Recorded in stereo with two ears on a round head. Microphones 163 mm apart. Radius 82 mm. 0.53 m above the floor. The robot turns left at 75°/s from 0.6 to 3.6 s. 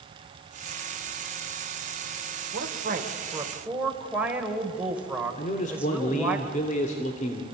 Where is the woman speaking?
90° right, 2.5 m; by 6.4 s 170° right, 2.5 m.